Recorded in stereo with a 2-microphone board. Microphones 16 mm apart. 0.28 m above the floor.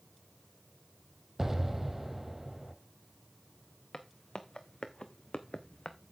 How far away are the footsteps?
About 1.5 m.